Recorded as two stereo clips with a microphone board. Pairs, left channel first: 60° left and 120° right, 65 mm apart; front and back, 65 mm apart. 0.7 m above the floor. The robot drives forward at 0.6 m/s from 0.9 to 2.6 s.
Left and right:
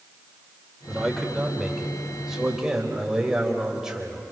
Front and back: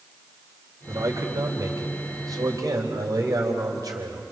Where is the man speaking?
150° left, 3 m; by 4.2 s 160° left, 3.5 m.